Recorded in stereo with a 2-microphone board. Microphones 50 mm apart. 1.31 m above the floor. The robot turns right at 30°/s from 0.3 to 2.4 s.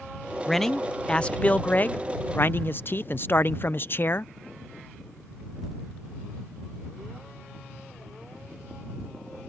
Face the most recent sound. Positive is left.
turn(degrees=65)